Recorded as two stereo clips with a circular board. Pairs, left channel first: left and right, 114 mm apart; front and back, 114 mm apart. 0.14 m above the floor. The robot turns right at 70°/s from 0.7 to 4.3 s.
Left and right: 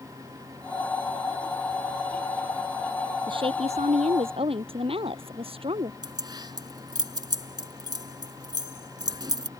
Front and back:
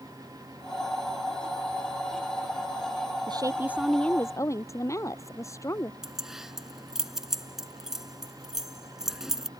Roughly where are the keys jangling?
Right.